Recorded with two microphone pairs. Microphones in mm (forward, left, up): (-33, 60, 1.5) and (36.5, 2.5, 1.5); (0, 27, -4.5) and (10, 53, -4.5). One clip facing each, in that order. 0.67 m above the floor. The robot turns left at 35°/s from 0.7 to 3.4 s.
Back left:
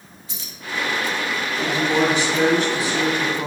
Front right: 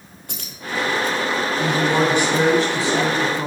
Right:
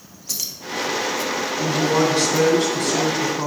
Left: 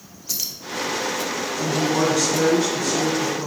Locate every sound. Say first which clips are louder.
0.3 s keys jangling: front right 4 dB, even; 10° right, 1.0 m
1.6 s a woman speaking: even, right 2 dB; 45° right, 2.5 m; by 3.5 s 110° right, 2.5 m